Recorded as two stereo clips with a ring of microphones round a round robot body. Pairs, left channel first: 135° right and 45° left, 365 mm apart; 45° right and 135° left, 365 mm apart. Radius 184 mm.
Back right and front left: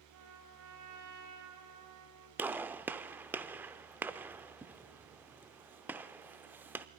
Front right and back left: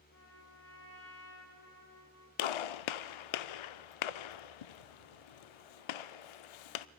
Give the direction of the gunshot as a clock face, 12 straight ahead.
1 o'clock.